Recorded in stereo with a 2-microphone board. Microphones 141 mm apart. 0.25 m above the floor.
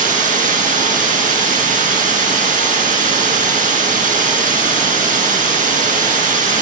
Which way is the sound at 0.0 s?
70° right (ahead or behind).